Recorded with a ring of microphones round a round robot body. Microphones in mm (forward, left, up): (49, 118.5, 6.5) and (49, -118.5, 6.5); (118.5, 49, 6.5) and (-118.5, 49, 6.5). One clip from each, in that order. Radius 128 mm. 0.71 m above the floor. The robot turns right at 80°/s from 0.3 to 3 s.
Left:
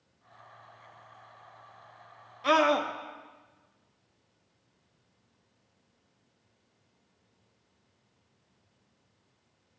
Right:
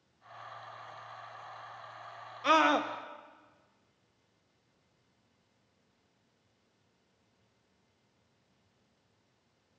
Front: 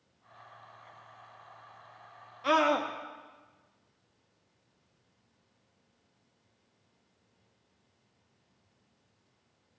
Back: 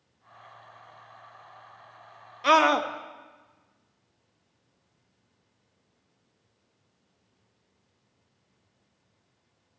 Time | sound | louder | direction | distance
2.4 | a scream | left 2 dB, back 6 dB | 165° right | 0.6 m